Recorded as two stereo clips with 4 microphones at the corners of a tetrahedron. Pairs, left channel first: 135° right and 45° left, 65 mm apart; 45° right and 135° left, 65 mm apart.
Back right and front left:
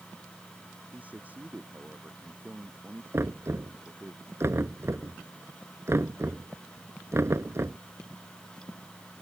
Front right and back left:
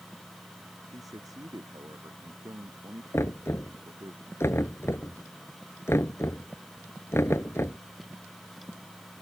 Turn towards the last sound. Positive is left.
turn(degrees=0)